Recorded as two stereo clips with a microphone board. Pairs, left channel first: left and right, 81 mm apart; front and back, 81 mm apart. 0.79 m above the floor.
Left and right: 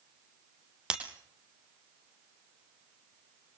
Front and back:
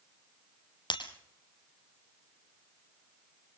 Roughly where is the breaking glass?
Ahead.